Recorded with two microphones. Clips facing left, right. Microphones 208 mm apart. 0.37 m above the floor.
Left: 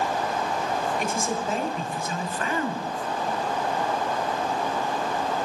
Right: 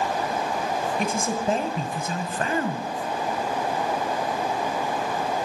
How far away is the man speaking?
About 1.1 m.